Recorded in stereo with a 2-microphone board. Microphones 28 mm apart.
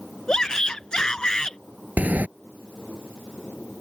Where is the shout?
25° left (ahead or behind).